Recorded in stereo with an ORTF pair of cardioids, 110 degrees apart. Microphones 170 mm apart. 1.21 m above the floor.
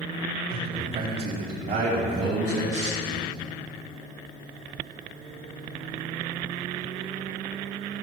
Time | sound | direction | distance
0.5 | a man speaking | 70° right | 5.5 m